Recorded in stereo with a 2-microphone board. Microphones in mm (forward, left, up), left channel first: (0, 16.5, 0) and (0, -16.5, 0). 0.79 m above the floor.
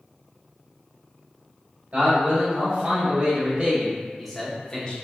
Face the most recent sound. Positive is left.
turn(degrees=30)  # may be behind; listen again after turning